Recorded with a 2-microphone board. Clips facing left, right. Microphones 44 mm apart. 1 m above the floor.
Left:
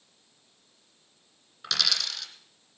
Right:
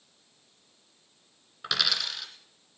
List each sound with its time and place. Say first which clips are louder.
1.6 s a dropped coin: right 1 dB; 20° right (ahead or behind), 2 m